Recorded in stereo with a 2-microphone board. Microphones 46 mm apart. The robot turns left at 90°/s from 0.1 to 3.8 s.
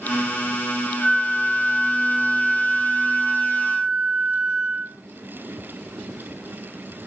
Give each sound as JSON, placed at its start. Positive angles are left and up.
{"t": 1.0, "sound": "a flute", "azimuth_deg": 110, "distance_m": 0.8}